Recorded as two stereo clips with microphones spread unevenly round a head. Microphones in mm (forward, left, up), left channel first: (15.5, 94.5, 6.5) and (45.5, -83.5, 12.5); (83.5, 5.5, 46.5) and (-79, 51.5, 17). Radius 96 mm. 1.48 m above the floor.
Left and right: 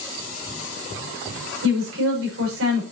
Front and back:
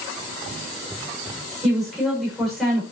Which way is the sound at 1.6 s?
105° right.